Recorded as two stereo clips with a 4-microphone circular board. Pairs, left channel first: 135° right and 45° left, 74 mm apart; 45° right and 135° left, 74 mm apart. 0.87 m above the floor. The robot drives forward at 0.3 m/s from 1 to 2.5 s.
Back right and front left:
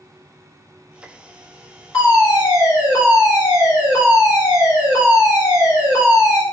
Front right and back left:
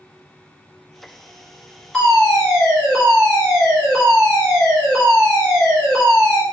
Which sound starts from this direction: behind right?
A fire alarm, at 1.9 s.